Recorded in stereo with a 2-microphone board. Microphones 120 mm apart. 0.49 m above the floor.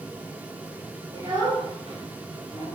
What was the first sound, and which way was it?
A child speaking, 45° right (ahead or behind).